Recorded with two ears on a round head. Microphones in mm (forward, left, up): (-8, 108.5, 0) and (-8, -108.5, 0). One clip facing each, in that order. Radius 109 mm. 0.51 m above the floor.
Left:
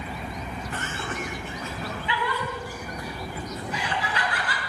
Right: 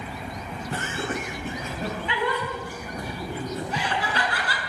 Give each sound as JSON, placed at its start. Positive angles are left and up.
{"t": 0.7, "sound": "laughter", "side_deg": -30, "distance_m": 3.5}